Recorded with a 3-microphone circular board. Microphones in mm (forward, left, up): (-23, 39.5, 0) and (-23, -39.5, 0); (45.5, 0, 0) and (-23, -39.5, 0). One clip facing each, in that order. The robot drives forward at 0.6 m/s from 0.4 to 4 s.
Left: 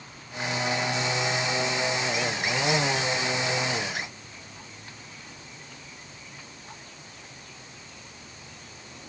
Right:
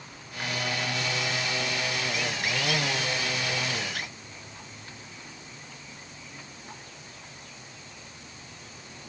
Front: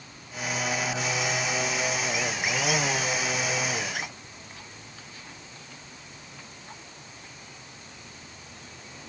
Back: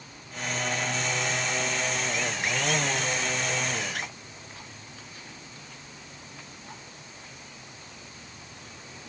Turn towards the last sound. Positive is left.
No sound to turn to.